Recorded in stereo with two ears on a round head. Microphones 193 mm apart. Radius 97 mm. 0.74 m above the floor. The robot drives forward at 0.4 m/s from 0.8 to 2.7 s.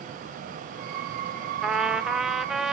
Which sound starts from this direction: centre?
A trumpet, at 1.6 s.